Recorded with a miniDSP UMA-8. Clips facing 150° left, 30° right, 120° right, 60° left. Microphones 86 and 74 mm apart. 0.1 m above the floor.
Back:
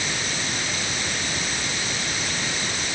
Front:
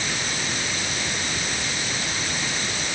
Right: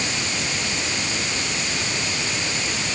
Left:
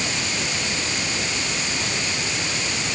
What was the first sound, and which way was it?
Only background noise.